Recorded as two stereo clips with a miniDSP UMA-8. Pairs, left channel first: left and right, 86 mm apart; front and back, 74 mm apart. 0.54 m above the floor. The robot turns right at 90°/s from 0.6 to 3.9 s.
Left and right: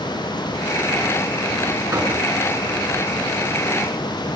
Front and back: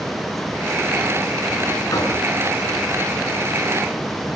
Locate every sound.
1.9 s knocking: 45° right, 6.5 m; by 2.2 s 20° right, 6.5 m